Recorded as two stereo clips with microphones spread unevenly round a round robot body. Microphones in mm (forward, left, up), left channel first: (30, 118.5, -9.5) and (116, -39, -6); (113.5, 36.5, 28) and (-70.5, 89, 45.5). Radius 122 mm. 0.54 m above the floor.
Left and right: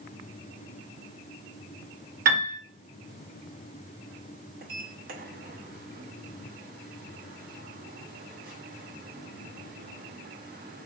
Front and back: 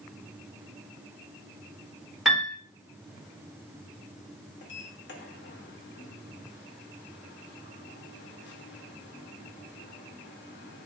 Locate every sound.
2.2 s a piano: 105° right, 1.3 m
4.6 s a sliding door: 30° right, 0.8 m